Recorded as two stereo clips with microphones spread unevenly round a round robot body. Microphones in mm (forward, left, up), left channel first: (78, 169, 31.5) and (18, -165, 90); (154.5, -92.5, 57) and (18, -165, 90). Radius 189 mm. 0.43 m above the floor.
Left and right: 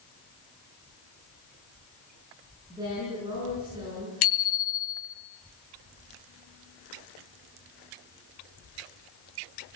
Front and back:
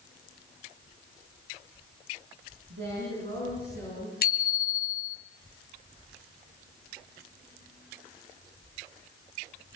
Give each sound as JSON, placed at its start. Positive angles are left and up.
{"t": 2.7, "sound": "a woman speaking", "azimuth_deg": 180, "distance_m": 8.0}
{"t": 4.2, "sound": "a bicycle bell", "azimuth_deg": 35, "distance_m": 2.5}